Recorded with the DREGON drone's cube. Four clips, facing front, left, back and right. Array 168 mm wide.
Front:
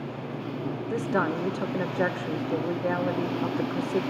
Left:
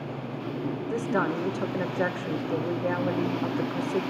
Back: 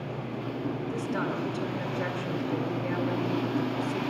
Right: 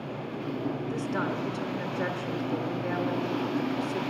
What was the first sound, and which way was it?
A woman speaking, 40° left.